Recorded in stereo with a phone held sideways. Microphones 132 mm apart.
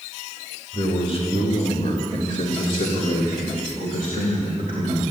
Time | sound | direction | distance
0.7 | a man speaking | 40° left (ahead or behind) | 2.5 m